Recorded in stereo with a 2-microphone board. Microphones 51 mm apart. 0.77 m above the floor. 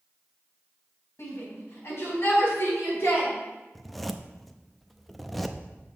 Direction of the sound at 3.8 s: Centre (ahead or behind).